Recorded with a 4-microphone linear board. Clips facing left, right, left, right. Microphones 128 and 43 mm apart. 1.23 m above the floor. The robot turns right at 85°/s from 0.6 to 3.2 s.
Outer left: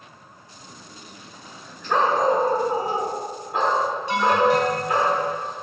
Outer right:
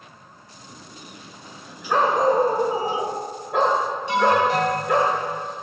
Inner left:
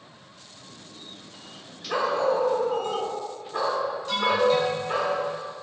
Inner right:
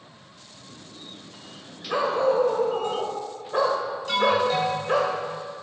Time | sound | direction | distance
1.9 | a dog barking | 175° left | 2 m
4.1 | an alarm | 70° right (ahead or behind) | 4 m